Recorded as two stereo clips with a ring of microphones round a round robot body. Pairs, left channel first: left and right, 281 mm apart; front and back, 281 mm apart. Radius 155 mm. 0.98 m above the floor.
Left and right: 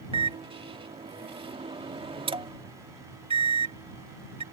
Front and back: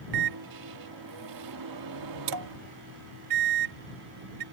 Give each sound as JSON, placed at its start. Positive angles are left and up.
{"t": 0.1, "sound": "a microwave", "azimuth_deg": -160}